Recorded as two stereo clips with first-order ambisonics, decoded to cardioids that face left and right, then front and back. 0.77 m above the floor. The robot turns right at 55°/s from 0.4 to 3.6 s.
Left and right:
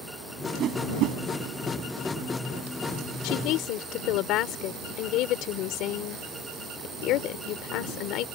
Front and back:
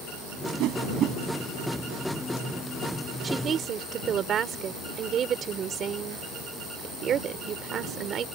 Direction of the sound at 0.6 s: 150° right.